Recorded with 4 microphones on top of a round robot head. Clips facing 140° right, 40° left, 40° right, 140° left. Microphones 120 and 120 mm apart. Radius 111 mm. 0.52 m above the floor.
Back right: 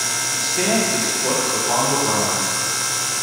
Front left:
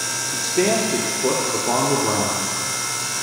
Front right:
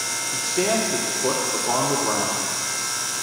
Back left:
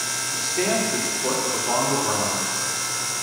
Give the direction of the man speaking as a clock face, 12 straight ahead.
11 o'clock.